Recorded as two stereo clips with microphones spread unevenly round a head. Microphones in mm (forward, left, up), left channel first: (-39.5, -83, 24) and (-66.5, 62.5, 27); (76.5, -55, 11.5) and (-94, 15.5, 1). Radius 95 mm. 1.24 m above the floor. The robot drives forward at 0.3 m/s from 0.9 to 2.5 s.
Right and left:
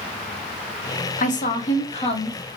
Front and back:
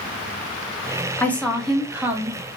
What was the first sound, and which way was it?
A woman speaking, 105° right.